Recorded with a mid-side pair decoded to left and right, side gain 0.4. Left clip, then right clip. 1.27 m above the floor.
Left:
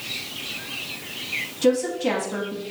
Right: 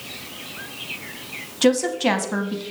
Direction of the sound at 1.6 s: 65° right.